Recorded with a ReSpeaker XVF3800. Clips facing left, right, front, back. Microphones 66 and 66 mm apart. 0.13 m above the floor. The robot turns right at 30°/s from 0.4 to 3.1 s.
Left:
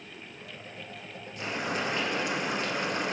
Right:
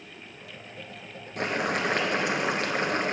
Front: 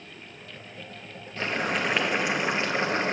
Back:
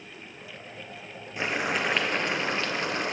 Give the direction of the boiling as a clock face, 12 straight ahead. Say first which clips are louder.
Right 5 dB, even; 4 o'clock.